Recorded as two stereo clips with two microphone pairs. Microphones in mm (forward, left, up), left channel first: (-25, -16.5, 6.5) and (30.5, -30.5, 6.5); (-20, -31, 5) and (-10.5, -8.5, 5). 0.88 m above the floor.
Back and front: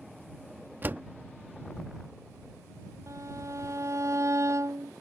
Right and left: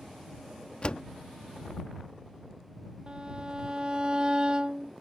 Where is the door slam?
70° right.